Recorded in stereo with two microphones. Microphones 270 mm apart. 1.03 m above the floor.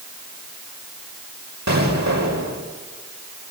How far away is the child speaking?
No child speaking in this recording.